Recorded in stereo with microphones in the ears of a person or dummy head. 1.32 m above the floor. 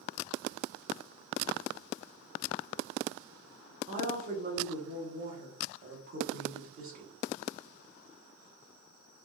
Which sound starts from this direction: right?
A woman speaking, at 3.9 s.